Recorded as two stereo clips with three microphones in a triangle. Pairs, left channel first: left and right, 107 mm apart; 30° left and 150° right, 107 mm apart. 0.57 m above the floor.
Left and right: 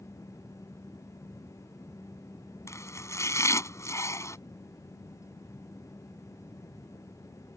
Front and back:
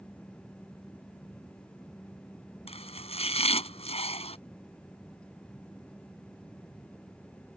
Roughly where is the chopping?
Ahead left.